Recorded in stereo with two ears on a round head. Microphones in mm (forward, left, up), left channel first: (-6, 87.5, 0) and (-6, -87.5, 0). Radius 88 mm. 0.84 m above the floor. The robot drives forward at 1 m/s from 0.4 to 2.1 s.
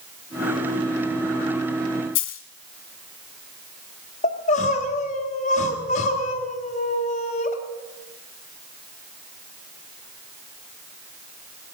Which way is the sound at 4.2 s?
40° left (ahead or behind).